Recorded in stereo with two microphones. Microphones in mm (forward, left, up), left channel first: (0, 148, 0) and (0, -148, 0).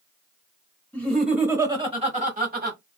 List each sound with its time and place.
0.9 s laughter: 5° left (ahead or behind), 0.9 m; by 2.8 s 35° right (ahead or behind), 1.2 m